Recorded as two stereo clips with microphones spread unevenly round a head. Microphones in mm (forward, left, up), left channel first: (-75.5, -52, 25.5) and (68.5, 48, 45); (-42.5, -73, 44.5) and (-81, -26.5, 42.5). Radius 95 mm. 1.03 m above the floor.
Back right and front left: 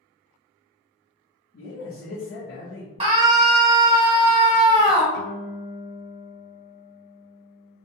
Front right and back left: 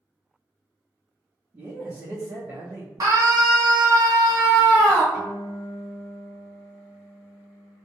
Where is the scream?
95° left, 1.4 m.